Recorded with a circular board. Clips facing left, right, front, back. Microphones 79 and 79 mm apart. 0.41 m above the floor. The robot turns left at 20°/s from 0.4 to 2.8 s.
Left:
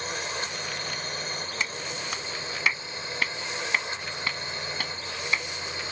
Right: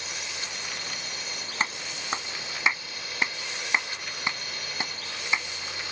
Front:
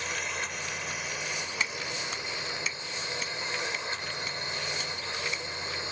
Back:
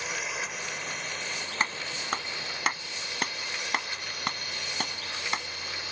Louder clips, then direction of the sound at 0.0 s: Left 6 dB, even; 95° left.